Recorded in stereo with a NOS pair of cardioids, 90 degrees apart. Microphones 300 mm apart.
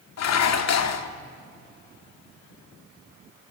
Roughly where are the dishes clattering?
Ahead left.